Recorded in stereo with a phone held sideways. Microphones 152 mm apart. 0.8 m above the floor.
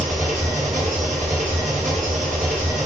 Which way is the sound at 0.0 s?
55° right (ahead or behind).